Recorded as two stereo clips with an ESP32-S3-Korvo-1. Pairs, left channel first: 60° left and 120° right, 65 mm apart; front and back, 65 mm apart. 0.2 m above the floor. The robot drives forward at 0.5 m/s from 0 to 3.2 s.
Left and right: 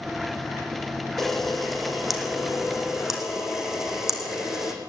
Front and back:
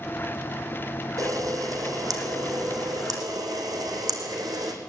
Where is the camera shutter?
145° left, 2.5 m; by 4.7 s 155° left, 3.5 m.